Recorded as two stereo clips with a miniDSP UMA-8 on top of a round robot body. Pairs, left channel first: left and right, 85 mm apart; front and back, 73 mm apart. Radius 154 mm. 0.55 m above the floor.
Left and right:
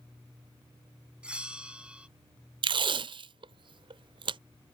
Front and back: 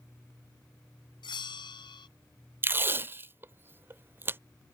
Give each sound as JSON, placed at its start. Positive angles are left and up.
{"t": 1.2, "sound": "a bell", "azimuth_deg": -10}
{"t": 2.6, "sound": "tape being pulled", "azimuth_deg": -120}